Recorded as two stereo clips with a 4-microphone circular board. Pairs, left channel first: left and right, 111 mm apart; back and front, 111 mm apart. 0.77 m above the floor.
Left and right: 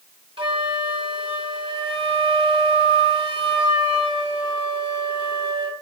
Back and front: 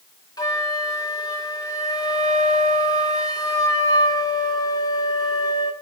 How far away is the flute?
About 1.7 m.